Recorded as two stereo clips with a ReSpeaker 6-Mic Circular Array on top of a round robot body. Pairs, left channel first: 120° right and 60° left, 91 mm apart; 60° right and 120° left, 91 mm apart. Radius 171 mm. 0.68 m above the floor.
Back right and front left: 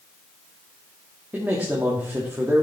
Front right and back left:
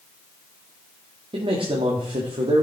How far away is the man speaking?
About 1.9 m.